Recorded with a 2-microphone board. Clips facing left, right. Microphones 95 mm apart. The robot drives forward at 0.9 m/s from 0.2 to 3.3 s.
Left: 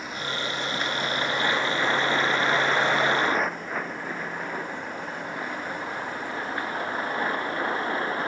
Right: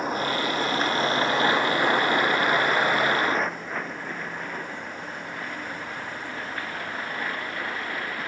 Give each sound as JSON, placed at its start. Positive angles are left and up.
{"t": 0.0, "sound": "a vehicle", "side_deg": -40}